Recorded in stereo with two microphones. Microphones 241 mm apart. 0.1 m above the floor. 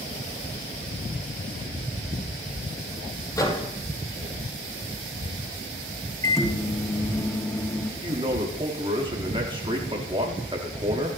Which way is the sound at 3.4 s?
15° left (ahead or behind).